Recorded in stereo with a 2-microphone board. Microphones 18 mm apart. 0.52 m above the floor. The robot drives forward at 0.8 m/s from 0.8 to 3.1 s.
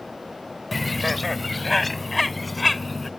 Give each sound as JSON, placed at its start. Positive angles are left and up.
{"t": 0.7, "sound": "a bird", "side_deg": -5}